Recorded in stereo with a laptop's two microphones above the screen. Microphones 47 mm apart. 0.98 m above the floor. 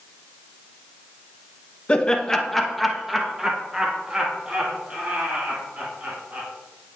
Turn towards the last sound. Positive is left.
turn(degrees=-30)  # may be behind; listen again after turning